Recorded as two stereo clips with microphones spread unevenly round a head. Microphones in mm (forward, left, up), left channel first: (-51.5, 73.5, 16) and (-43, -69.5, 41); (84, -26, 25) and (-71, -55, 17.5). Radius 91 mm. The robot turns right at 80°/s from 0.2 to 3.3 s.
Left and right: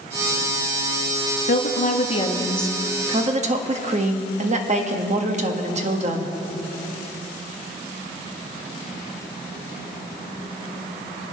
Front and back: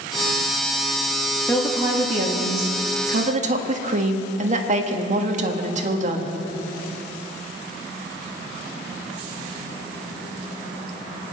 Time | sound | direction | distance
1.5 | a woman speaking | 85° left | 1.6 m